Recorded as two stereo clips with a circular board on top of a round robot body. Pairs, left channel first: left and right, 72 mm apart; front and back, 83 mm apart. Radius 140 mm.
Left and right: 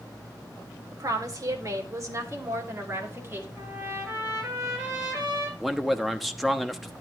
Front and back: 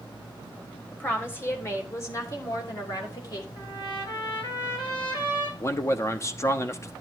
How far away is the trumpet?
About 9.5 m.